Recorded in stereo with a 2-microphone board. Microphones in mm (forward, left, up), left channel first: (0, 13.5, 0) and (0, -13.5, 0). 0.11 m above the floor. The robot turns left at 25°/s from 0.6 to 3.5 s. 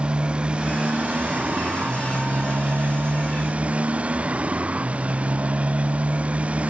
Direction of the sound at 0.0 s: 45° right.